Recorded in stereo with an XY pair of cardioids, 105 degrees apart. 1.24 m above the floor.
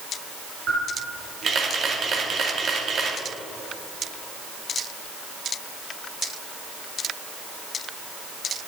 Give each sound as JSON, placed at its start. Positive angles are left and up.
{"t": 0.7, "sound": "a camera shutter", "azimuth_deg": -55, "distance_m": 2.0}